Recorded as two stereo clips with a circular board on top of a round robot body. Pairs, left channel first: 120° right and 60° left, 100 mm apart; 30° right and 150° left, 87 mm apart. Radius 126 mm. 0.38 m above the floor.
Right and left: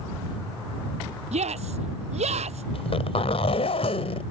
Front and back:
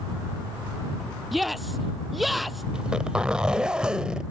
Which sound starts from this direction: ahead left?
A shout, at 1.3 s.